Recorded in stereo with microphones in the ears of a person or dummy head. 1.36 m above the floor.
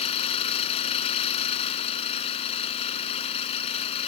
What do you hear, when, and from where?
0.0 s an engine running: 35° left (ahead or behind)